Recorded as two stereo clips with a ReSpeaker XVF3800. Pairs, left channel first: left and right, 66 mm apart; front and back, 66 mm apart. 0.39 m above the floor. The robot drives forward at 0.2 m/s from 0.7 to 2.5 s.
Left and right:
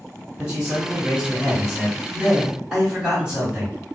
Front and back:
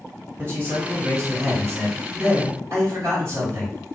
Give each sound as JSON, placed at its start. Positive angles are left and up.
{"t": 0.4, "sound": "a man speaking", "azimuth_deg": -160, "distance_m": 1.7}